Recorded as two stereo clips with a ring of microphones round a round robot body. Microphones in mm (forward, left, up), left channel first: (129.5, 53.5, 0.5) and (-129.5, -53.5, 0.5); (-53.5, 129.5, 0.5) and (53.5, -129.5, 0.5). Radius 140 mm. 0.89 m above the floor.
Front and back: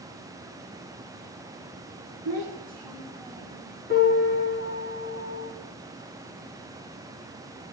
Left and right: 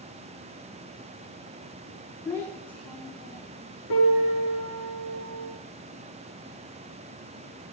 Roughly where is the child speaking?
Behind.